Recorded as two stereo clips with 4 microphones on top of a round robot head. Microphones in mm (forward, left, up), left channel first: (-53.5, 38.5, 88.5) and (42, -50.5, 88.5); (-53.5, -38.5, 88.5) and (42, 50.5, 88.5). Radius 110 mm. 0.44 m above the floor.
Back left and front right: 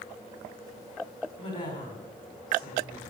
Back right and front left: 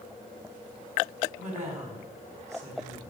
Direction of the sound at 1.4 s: 80° left.